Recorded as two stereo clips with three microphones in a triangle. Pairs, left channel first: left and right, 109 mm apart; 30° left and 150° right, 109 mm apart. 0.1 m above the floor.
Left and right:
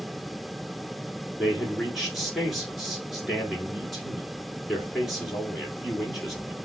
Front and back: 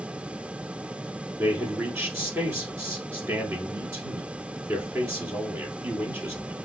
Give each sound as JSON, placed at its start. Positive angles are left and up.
{"t": 1.4, "sound": "a man speaking", "azimuth_deg": 180, "distance_m": 1.2}